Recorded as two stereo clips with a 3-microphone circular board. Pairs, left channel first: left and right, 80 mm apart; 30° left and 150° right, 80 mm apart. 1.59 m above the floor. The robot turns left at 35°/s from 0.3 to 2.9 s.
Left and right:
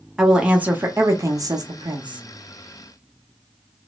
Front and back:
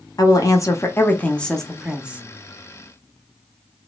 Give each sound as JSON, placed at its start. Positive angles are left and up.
{"t": 0.2, "sound": "a woman speaking", "azimuth_deg": -10, "distance_m": 0.8}